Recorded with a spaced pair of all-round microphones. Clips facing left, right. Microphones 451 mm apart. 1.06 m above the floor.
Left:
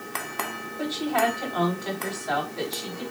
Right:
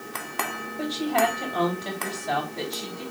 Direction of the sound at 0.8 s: 50° right (ahead or behind).